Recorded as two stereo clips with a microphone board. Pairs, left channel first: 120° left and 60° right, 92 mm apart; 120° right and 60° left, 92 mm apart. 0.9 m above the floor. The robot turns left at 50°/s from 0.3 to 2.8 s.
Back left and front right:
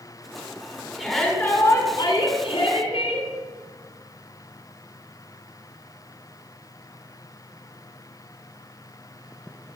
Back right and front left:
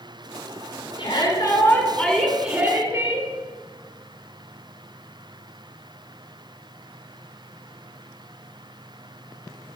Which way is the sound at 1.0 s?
155° right.